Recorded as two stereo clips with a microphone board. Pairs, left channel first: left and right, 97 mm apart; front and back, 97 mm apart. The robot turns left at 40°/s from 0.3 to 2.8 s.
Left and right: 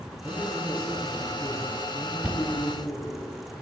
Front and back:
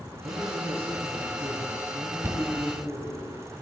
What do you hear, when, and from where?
0.2 s a man speaking: 165° right, 2.5 m; by 3.2 s 95° left, 2.5 m
2.2 s knocking: 150° right, 0.8 m; by 2.4 s 160° right, 0.8 m